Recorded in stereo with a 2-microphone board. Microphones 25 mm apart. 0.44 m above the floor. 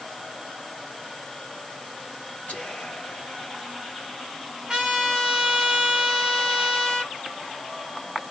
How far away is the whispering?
About 1.5 m.